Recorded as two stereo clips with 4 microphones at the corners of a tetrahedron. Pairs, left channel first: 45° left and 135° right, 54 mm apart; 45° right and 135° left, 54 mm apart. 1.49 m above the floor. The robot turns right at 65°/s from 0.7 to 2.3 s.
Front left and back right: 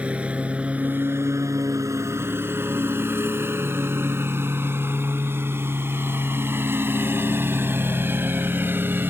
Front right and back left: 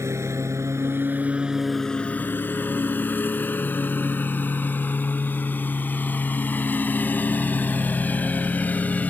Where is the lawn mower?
160° left; by 9.1 s 100° right.